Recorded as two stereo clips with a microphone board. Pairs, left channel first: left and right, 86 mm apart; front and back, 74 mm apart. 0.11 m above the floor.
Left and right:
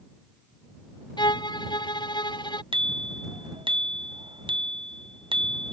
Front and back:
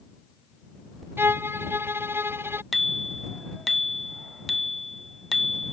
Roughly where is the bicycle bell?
Right.